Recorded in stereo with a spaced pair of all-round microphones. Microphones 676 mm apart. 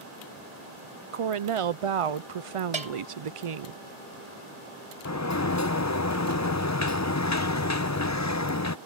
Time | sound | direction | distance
1.1 | a woman speaking | 55° right (ahead or behind) | ?
2.7 | a bell | 65° right (ahead or behind) | ?
5.0 | a sliding door | 25° left (ahead or behind) | ?